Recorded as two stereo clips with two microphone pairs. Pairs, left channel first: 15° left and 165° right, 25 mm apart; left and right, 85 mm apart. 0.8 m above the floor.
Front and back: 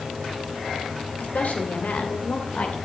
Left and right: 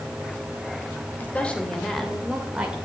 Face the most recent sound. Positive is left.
turn(degrees=-15)